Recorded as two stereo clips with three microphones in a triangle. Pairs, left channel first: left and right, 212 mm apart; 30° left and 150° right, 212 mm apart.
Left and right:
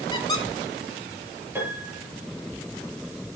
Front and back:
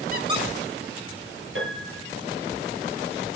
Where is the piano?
170° right, 9 m.